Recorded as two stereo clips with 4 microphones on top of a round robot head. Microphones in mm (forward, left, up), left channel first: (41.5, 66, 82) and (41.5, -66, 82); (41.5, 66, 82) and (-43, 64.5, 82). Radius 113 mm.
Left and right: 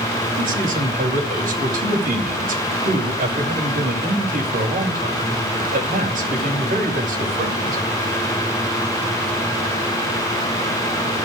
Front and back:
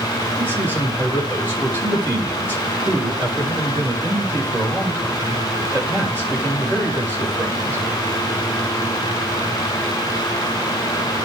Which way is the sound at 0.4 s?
110° right.